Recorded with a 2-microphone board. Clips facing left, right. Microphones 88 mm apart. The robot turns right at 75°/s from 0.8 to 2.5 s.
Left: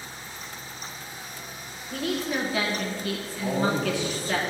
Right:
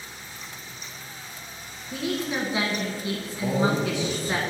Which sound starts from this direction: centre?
A woman speaking, at 1.9 s.